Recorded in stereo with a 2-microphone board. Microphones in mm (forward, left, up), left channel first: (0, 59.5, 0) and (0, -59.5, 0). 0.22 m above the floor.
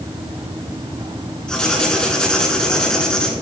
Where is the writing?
5° left (ahead or behind), 1.9 m.